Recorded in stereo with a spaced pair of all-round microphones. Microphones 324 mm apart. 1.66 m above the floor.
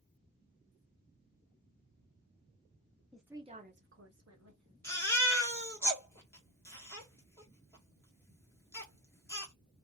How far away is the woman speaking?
About 0.6 m.